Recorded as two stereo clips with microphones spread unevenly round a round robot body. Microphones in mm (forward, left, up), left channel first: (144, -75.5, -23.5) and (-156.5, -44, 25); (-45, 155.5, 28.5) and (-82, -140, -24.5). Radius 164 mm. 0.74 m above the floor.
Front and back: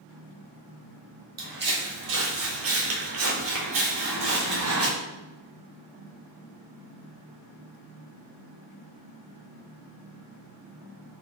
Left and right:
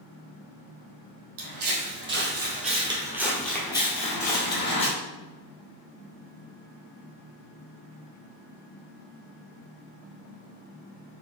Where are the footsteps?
140° right, 1.7 m; by 4.9 s 120° left, 1.6 m.